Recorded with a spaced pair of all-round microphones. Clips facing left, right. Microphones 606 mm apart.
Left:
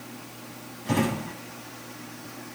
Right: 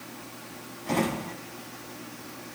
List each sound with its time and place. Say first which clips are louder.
0.8 s a drawer: left 2 dB; 40° left (ahead or behind), 4 m